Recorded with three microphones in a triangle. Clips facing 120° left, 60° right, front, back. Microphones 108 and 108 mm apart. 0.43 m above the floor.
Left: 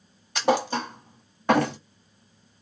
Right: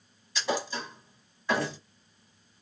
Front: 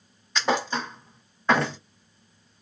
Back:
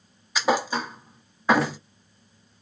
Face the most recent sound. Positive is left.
turn(degrees=95)